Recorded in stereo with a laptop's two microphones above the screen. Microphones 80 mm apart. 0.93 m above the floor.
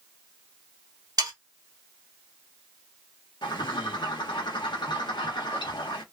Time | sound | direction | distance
1.2 | sawing | 50° right (ahead or behind) | 1.3 m
3.4 | a bird | 70° left (ahead or behind) | 0.9 m